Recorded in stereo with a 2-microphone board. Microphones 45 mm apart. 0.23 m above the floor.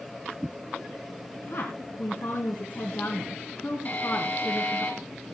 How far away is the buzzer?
About 4.5 m.